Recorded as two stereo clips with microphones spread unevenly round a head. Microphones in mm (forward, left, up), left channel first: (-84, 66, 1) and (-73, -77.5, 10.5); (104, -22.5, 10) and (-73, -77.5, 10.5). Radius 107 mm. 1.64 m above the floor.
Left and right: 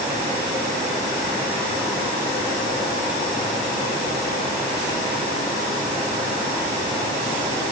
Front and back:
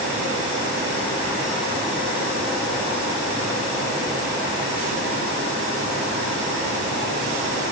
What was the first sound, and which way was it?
Only background noise.